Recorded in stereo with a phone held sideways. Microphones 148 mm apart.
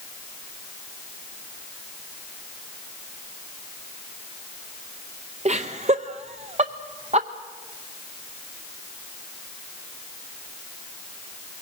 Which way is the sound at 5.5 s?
50° right (ahead or behind).